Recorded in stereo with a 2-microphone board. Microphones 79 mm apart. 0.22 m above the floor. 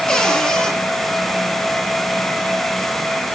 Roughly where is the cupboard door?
Centre.